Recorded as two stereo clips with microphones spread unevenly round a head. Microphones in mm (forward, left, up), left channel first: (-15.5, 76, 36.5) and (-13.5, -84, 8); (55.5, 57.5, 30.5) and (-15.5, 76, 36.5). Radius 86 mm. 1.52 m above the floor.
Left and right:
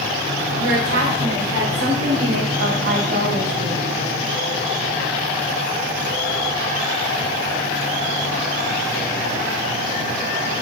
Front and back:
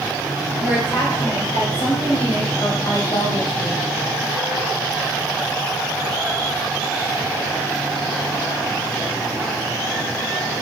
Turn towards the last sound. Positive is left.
turn(degrees=-50)